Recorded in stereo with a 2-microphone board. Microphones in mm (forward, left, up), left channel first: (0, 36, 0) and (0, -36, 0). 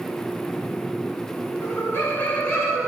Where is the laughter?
35° left (ahead or behind), 1.5 m; by 2.9 s 5° right (ahead or behind), 1.1 m.